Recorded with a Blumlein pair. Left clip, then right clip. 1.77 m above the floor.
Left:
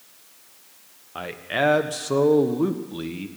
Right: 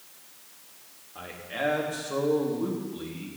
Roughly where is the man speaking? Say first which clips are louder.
Left 8 dB; ahead left.